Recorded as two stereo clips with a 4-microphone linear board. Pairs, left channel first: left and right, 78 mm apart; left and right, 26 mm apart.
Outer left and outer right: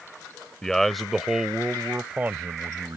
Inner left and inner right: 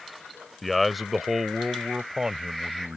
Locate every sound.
0.6 s a man speaking: 5° left (ahead or behind); by 3.0 s 40° right (ahead or behind)